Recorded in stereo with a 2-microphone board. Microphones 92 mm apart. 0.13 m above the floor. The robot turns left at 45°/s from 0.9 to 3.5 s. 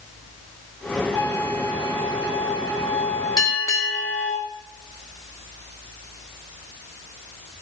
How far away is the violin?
About 4 m.